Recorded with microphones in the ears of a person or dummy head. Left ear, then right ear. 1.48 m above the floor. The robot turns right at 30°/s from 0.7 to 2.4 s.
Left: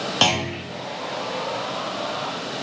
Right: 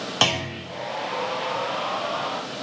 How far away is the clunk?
About 0.8 m.